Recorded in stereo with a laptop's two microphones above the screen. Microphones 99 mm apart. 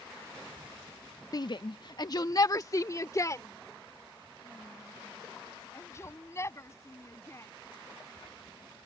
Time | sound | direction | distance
1.3 | a shout | 40° left (ahead or behind) | ?